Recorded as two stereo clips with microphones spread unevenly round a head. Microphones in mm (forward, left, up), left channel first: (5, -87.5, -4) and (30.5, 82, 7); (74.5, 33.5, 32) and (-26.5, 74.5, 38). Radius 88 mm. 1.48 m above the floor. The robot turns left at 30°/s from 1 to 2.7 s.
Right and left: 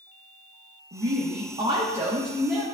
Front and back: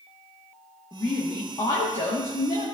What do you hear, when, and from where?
0.9 s a woman speaking: 40° left, 1.6 m; by 2.7 s 10° right, 1.6 m